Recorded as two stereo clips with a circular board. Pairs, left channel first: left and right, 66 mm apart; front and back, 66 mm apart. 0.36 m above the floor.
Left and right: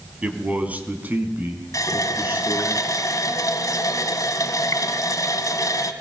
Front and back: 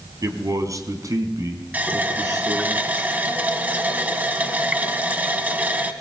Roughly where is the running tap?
Behind left.